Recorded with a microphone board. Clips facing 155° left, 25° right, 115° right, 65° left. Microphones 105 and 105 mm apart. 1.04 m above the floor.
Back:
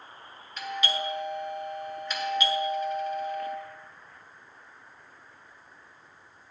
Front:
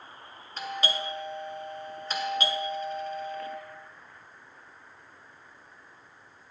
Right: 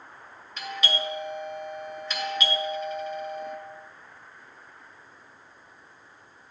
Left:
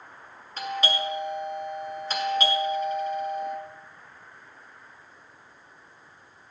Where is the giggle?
No giggle in this recording.